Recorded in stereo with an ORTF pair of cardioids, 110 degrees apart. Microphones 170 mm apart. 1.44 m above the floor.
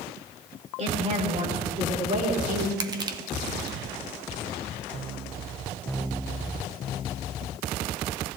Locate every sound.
0.8 s a woman speaking: 45° right, 5 m; by 2.7 s 50° right, 3.5 m
2.8 s crushing: 25° right, 1.1 m